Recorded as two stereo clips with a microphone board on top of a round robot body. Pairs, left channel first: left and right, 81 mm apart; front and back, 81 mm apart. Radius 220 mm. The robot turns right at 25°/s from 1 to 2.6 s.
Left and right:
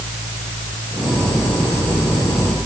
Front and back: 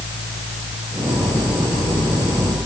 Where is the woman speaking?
No woman speaking in this recording.